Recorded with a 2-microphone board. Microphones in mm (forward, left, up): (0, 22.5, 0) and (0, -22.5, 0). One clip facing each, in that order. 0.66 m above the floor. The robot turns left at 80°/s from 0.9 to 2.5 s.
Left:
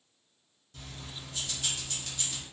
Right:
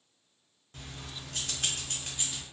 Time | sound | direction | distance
0.7 | keys jangling | 55° right | 0.6 m